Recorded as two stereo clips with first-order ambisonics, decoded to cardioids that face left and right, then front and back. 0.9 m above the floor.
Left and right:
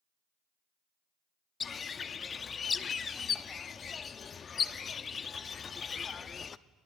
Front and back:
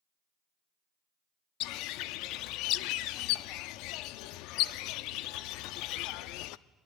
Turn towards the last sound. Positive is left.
turn(degrees=20)